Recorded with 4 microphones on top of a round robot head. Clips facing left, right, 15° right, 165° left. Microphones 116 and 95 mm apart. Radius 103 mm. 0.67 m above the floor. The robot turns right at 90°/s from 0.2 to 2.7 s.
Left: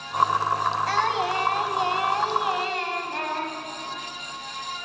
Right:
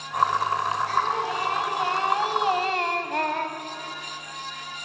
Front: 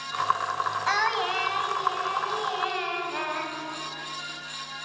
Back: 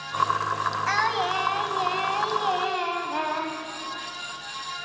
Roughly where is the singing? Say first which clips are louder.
Left 1 dB, back 1 dB; ahead left.